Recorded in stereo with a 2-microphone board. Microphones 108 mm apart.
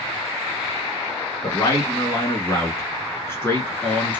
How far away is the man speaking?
About 2 m.